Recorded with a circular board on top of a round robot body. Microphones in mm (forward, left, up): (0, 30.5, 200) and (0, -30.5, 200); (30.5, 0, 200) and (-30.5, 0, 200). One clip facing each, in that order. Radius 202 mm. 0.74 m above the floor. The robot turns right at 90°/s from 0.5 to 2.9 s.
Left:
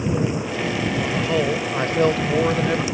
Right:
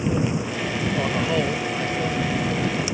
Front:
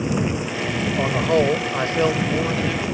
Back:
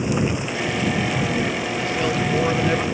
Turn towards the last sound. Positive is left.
turn(degrees=140)